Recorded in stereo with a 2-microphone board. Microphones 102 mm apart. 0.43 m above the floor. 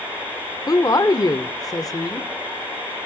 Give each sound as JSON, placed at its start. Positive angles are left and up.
{"t": 0.7, "sound": "a woman speaking", "side_deg": 35, "distance_m": 1.0}